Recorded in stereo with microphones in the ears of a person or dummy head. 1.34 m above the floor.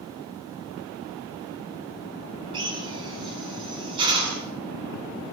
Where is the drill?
25° right (ahead or behind), 7.5 m.